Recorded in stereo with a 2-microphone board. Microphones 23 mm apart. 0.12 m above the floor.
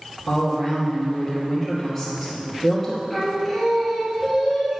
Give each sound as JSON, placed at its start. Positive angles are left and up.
{"t": 0.3, "sound": "a woman speaking", "side_deg": 10, "distance_m": 1.7}
{"t": 3.1, "sound": "singing", "side_deg": -10, "distance_m": 1.7}